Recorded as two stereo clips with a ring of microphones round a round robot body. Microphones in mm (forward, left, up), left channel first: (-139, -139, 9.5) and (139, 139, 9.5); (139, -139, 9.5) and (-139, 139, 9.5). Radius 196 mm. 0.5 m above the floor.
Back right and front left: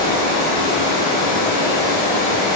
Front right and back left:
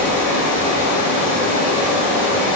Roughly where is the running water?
Ahead left.